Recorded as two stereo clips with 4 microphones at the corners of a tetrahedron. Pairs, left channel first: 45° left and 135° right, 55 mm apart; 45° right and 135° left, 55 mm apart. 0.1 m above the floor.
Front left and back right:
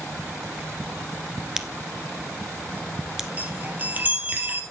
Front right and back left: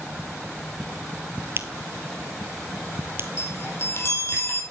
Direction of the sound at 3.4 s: 80° right.